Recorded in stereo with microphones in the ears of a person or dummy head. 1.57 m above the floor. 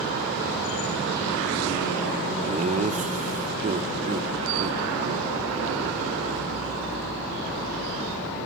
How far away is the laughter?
About 0.9 m.